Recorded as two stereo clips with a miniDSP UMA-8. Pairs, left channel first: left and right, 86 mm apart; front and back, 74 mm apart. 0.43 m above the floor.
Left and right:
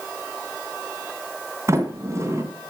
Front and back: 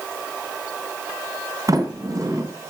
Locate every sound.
1.7 s a sliding door: 145° right, 2.5 m